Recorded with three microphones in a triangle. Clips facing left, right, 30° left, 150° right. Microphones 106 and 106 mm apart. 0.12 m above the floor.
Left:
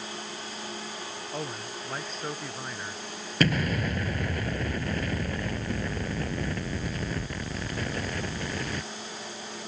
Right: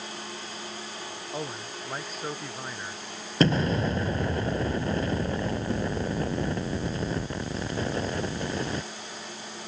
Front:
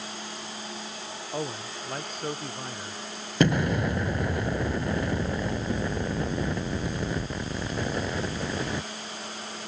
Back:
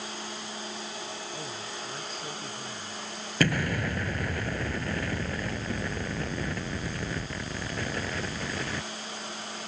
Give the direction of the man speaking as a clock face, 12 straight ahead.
12 o'clock.